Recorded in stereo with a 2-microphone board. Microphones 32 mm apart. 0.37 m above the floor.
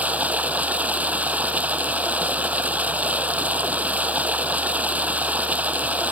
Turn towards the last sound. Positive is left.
turn(degrees=-55)  # may be behind; listen again after turning